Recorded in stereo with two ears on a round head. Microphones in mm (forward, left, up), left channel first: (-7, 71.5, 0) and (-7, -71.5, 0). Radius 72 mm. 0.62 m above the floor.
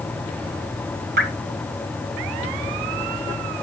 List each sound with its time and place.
1.2 s dripping: 60° right (ahead or behind), 3 m